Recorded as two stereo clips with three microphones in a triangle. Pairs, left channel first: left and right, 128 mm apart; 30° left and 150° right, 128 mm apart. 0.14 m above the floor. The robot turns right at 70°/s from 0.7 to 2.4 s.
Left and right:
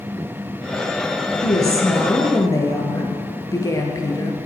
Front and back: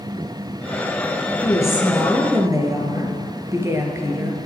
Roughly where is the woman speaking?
Left.